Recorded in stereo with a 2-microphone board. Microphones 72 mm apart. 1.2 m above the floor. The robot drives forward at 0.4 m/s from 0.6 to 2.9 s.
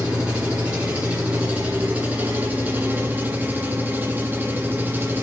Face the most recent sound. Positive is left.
turn(degrees=-25)  # may be behind; listen again after turning